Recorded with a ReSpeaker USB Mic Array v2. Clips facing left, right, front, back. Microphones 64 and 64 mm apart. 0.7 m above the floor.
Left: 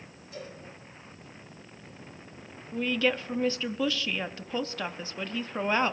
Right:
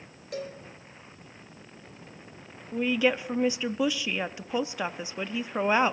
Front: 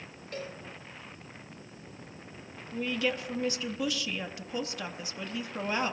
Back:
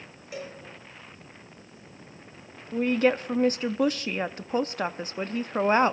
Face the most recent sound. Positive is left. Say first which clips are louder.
# right 2 dB, back 8 dB
turn(degrees=-160)